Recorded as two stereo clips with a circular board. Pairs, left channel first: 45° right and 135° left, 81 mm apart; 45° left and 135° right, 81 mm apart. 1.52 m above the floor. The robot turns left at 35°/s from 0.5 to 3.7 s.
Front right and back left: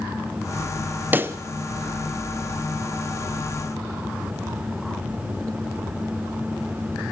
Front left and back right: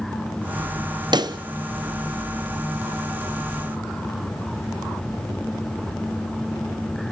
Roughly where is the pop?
Behind.